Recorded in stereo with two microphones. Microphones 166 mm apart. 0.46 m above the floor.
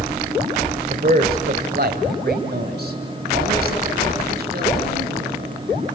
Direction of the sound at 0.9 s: 50° right (ahead or behind).